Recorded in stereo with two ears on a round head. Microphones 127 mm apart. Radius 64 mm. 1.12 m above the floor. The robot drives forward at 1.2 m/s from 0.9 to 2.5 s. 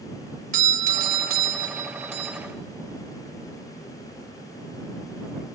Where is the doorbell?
60° right (ahead or behind), 1.4 m; by 2.4 s 40° right (ahead or behind), 1.9 m.